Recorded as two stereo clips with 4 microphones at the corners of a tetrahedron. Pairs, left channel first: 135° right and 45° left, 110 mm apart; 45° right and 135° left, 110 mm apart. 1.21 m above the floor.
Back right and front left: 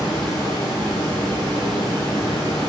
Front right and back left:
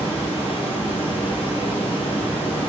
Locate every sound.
0.0 s running water: 80° right, 3.5 m